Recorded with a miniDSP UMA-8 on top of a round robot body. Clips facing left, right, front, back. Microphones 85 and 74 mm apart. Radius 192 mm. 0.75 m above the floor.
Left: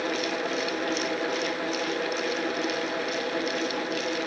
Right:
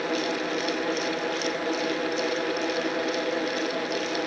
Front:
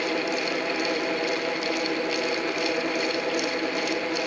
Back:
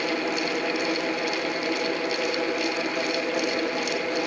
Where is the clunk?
I don't hear a clunk.